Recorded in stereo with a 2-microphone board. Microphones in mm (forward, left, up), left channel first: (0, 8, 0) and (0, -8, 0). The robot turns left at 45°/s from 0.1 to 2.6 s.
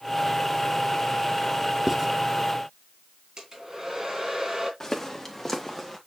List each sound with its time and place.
1.9 s writing: 10° right (ahead or behind), 1.2 m; by 2.1 s 20° right (ahead or behind), 1.2 m
3.4 s a hair dryer: 35° right (ahead or behind), 3 m
4.8 s footsteps: 15° left (ahead or behind), 2.5 m; by 6.0 s 5° right (ahead or behind), 2 m